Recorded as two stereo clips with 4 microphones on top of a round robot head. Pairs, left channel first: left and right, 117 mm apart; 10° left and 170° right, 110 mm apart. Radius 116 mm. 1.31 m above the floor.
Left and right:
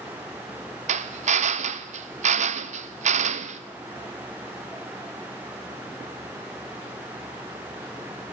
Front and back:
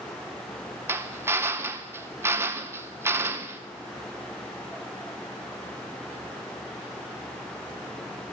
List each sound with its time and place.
0.9 s a drill: 100° right, 0.7 m